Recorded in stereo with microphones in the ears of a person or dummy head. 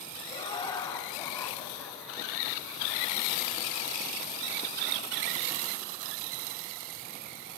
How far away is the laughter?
About 2.5 m.